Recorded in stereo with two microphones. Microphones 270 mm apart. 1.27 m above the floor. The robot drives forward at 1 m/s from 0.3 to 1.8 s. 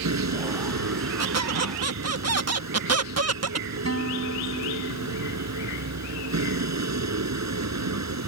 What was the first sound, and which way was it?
A vehicle, 85° right.